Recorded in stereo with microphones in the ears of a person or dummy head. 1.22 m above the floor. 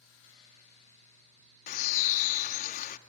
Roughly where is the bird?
Left.